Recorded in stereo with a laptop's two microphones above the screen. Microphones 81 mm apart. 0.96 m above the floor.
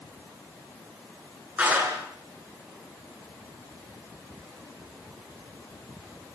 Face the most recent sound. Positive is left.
turn(degrees=-20)  # may be behind; listen again after turning